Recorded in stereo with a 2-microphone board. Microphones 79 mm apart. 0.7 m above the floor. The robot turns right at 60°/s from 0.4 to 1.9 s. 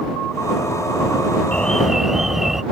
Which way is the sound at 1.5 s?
20° left (ahead or behind).